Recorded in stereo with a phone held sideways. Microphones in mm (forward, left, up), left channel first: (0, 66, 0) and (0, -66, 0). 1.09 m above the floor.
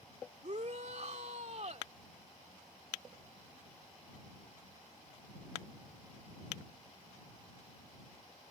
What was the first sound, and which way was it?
A shout, 60° right (ahead or behind).